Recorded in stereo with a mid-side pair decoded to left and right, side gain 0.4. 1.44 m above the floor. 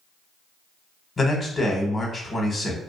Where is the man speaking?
35° left, 1.0 m.